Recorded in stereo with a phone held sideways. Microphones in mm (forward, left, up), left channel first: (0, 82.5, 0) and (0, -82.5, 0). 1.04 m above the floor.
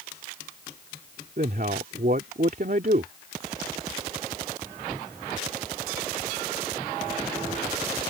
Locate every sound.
1.4 s a man speaking: 65° right (ahead or behind)